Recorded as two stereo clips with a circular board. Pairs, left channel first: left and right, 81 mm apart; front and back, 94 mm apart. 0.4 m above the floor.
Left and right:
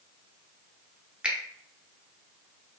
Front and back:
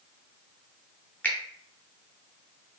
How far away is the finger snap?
About 0.6 m.